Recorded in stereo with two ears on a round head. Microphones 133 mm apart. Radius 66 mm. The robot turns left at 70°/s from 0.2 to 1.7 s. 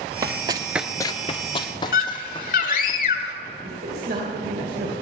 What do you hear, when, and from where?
0.2 s running footsteps: 25° right (ahead or behind), 1.0 m; by 2.9 s 35° left (ahead or behind), 3 m
1.9 s a scream: 65° left (ahead or behind), 1.8 m
3.6 s a man speaking: 70° right (ahead or behind), 3 m